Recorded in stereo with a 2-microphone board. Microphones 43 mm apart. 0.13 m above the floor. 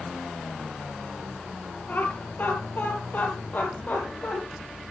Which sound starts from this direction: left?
Laughter, at 1.9 s.